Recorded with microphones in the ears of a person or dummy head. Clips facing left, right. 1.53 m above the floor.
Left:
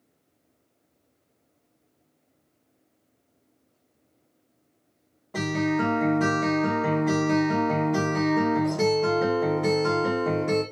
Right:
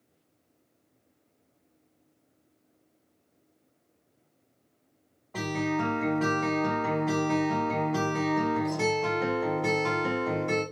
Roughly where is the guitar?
Left.